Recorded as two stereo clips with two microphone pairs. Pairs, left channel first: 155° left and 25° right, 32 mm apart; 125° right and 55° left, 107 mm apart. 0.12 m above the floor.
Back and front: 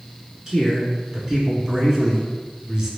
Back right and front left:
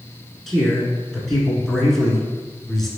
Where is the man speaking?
40° right, 1.2 m.